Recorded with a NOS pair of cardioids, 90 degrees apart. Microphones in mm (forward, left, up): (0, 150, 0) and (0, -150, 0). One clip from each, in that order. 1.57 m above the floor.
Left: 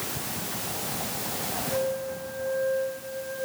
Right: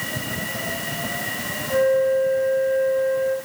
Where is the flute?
65° right, 6 m.